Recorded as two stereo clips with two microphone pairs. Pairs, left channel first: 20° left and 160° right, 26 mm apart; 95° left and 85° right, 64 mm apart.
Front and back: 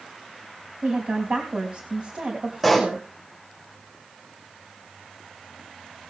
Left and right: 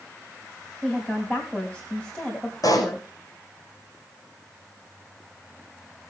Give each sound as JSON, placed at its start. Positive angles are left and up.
{"t": 0.8, "sound": "a woman speaking", "azimuth_deg": 165, "distance_m": 3.0}
{"t": 2.6, "sound": "a pop", "azimuth_deg": 115, "distance_m": 5.0}